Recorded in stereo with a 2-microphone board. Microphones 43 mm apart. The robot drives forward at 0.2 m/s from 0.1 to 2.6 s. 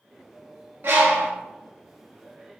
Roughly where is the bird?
Right.